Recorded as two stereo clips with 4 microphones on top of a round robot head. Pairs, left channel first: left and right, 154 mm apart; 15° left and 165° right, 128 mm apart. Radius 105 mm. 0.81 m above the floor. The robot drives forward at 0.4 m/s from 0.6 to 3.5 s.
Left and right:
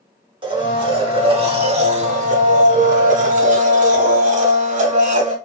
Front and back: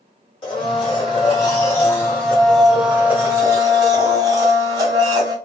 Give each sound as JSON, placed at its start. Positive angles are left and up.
{"t": 0.4, "sound": "a blender", "azimuth_deg": -35, "distance_m": 1.3}